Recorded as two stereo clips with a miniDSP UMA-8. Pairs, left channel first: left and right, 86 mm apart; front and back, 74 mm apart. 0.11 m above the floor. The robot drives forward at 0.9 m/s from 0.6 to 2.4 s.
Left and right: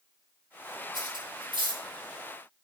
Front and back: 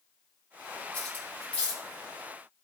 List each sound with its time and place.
0.9 s cutlery clinking: 65° right, 3 m; by 1.8 s 80° right, 2.5 m